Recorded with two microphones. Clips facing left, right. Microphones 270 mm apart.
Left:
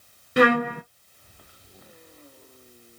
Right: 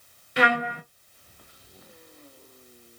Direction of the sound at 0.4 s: 55° left (ahead or behind).